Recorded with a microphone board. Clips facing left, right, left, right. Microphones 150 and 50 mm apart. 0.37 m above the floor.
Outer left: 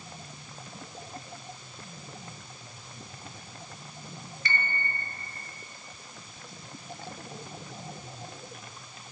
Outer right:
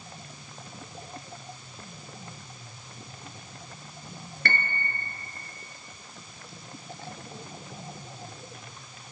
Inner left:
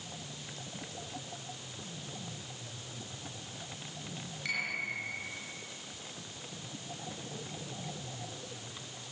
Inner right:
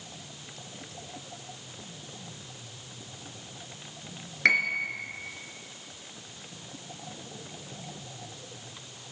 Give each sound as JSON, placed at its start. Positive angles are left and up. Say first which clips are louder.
{"t": 4.5, "sound": "a piano", "louder": "outer right 2 dB, inner right 11 dB", "side_deg": -65, "distance_m": 3.5}